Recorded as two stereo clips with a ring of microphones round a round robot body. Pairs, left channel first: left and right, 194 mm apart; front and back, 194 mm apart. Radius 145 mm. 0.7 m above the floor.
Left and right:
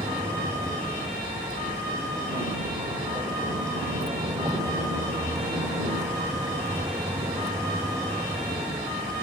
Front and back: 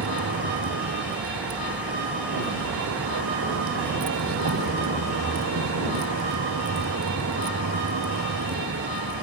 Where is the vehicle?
170° right.